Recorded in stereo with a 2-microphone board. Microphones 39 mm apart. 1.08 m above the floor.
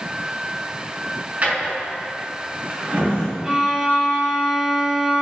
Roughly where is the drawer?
Right.